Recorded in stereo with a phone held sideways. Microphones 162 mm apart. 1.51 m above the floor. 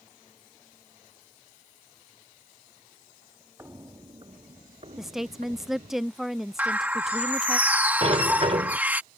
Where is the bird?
10° right (ahead or behind).